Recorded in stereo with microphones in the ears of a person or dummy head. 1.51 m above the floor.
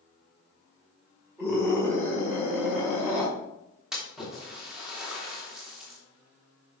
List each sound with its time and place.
1.4 s a scream: 15° right (ahead or behind), 4.5 m; by 3.3 s 10° right (ahead or behind), 5.5 m
3.9 s a splash: centre (ahead or behind), 2 m